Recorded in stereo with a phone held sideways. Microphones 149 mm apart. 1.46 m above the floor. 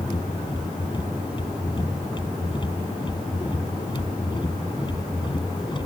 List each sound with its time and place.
0.0 s a machine running: 30° left (ahead or behind)